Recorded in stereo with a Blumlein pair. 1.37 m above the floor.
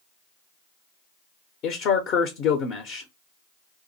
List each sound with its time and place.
1.6 s a man speaking: 35° left, 0.7 m